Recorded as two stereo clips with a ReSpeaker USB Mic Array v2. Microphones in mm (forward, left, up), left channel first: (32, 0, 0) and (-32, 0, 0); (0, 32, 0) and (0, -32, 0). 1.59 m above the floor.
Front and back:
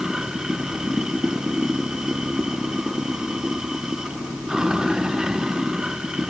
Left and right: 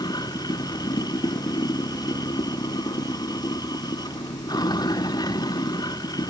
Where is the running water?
100° left.